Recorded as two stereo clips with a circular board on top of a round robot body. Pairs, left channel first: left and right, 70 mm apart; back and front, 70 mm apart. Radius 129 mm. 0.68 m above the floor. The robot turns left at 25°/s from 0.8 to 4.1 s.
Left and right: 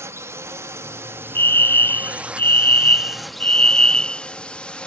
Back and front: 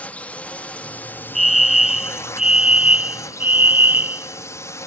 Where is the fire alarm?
90° left; by 4.9 s 20° left.